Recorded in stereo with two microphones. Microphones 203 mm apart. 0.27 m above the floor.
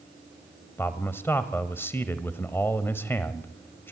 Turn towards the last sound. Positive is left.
turn(degrees=10)  # may be behind; listen again after turning